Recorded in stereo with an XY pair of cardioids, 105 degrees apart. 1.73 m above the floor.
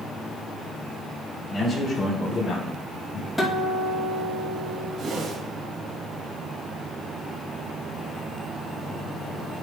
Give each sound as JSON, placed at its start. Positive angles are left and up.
{"t": 1.5, "sound": "a man speaking", "azimuth_deg": 30, "distance_m": 3.5}
{"t": 3.4, "sound": "a guitar", "azimuth_deg": 5, "distance_m": 2.5}
{"t": 5.0, "sound": "a whoosh", "azimuth_deg": -60, "distance_m": 2.5}